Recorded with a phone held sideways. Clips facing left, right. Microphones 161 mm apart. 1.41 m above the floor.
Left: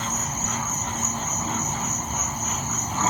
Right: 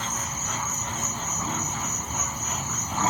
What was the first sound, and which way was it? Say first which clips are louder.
An insect: left 4 dB; 45° left (ahead or behind).